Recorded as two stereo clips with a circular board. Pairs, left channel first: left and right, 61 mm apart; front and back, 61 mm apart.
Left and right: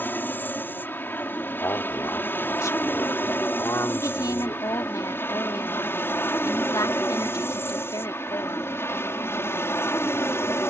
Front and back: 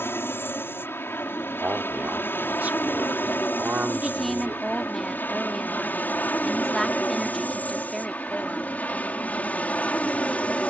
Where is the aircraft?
40° left; by 10.7 s 60° left.